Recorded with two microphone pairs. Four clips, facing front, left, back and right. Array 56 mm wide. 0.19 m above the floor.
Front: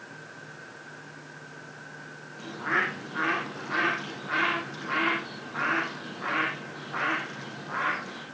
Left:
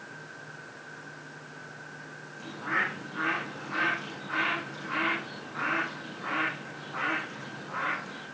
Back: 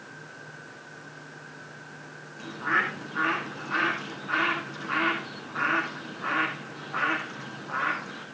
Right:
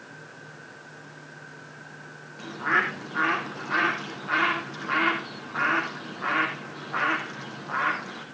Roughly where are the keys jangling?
No keys jangling in this recording.